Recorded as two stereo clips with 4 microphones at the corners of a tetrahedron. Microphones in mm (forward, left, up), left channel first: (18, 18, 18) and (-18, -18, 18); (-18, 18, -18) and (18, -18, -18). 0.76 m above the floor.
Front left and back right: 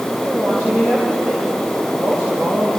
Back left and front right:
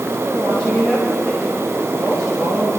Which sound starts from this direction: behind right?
A woman speaking, at 0.2 s.